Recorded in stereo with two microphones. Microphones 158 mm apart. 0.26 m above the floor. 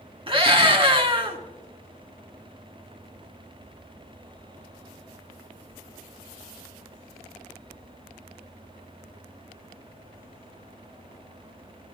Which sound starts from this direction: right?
A scream, at 0.3 s.